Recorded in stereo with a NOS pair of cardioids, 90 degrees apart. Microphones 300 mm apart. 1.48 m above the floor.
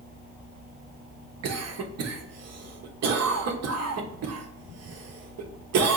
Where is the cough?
60° right, 1.1 m.